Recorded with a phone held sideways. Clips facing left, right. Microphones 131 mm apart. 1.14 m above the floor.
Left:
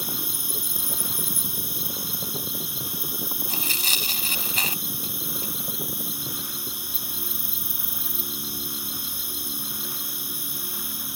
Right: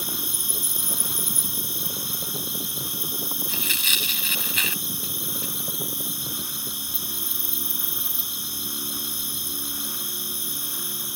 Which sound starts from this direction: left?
Tearing paper, at 3.5 s.